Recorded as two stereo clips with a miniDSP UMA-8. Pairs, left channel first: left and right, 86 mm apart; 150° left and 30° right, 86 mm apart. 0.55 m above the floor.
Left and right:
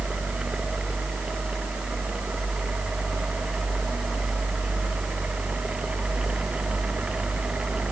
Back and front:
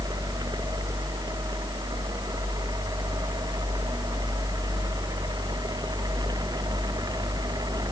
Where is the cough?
I don't hear a cough.